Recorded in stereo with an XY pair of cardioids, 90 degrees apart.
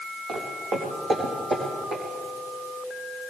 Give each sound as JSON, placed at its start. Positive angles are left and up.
{"t": 0.3, "sound": "footsteps", "azimuth_deg": -65, "distance_m": 4.5}